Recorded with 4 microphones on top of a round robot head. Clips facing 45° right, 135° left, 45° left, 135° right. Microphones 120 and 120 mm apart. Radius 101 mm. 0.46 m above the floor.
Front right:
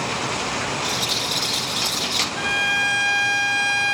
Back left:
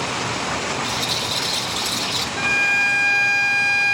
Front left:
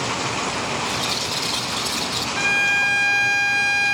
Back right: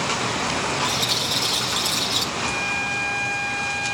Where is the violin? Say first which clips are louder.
Back left 1 dB, front left 3 dB; 35° left, 0.6 m.